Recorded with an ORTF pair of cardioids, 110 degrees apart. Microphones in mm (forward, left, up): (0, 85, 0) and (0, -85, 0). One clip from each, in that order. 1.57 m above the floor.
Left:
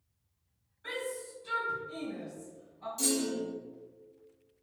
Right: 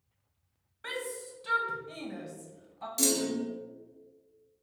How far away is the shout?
About 1.1 m.